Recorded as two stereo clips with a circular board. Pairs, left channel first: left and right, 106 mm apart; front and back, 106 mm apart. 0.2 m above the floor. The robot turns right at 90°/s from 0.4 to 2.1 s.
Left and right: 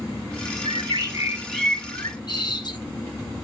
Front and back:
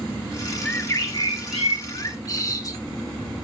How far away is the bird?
About 1.6 m.